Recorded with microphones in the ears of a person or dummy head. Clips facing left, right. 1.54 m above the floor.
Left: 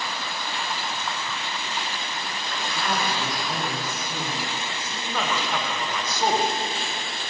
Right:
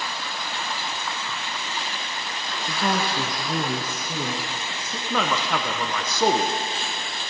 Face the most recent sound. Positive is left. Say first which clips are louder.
# right 3 dB
turn(degrees=-60)  # may be behind; listen again after turning